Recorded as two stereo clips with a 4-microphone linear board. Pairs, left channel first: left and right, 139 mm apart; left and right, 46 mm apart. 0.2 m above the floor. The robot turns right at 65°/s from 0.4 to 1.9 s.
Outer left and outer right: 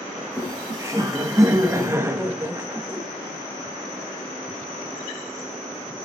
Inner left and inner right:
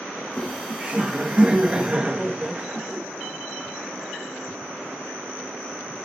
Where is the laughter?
10° right (ahead or behind), 1.1 m; by 3.0 s 20° right (ahead or behind), 1.1 m.